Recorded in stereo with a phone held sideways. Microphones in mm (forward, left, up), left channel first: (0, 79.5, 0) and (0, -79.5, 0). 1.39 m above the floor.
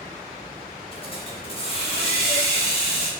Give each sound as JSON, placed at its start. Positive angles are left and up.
{"t": 0.9, "sound": "a hiss", "side_deg": 35, "distance_m": 0.5}